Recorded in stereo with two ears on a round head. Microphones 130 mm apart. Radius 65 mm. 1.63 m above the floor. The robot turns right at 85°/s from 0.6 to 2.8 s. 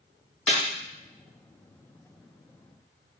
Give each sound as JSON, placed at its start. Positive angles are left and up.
{"t": 0.5, "sound": "a snare drum", "side_deg": 5, "distance_m": 1.4}